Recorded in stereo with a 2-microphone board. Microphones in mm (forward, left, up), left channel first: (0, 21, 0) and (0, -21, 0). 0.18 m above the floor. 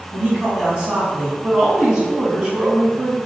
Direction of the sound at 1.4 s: 15° right (ahead or behind).